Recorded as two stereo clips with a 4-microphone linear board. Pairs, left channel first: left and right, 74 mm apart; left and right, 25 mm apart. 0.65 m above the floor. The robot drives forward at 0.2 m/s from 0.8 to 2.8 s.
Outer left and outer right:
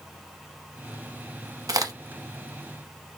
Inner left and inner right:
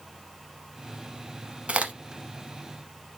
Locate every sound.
1.7 s a crack: 60° right (ahead or behind), 0.8 m; by 1.9 s 55° right (ahead or behind), 0.8 m